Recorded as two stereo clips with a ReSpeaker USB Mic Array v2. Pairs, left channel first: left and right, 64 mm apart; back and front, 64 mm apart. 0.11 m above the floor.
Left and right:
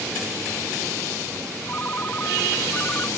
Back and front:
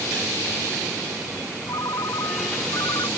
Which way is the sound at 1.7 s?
150° left.